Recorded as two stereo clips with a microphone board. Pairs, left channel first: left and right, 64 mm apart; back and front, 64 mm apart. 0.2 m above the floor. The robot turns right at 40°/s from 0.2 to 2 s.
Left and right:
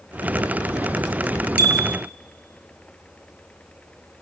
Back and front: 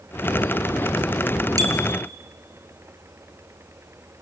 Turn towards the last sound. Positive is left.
turn(degrees=-10)